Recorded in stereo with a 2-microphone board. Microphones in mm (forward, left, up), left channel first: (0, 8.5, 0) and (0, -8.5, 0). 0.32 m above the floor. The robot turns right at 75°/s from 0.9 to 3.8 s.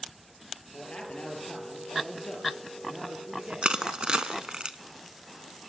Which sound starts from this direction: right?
Crushing, at 3.6 s.